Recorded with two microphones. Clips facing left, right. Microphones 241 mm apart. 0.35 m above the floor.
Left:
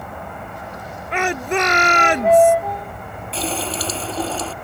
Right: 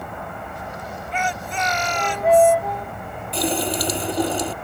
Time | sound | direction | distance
1.1 | a shout | 70° left (ahead or behind) | ?
3.3 | a running tap | 15° right (ahead or behind) | ?